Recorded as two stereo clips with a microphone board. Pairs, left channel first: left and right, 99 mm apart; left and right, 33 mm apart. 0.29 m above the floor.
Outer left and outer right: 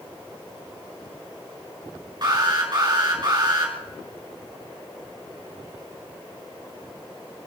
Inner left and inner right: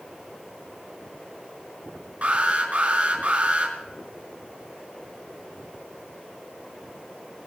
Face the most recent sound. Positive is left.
turn(degrees=-50)  # may be behind; listen again after turning